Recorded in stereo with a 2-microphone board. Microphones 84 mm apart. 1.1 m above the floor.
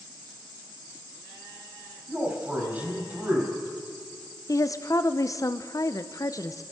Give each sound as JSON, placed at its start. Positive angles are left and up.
{"t": 2.1, "sound": "a man speaking", "side_deg": -25, "distance_m": 5.0}
{"t": 4.5, "sound": "a woman speaking", "side_deg": 40, "distance_m": 0.5}